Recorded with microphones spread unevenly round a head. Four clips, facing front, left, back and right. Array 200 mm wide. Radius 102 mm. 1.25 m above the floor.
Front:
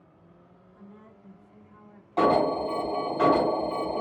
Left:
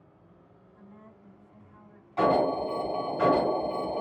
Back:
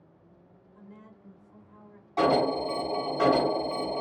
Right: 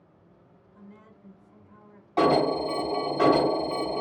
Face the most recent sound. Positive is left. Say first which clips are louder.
# right 2 dB, front 2 dB
turn(degrees=-65)